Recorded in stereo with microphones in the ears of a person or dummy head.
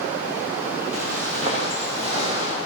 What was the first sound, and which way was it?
Footsteps, 40° right (ahead or behind).